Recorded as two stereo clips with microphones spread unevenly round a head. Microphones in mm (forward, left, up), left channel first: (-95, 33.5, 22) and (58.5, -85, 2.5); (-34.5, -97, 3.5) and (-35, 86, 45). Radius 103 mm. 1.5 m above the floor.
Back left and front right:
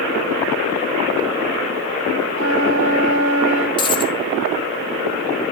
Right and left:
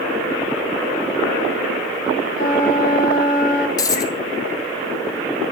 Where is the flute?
35° right, 2.5 m.